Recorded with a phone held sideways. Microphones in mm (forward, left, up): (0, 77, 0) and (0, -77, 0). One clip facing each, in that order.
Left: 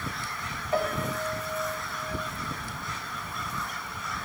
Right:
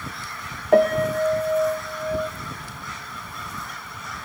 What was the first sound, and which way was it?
A piano, 65° right (ahead or behind).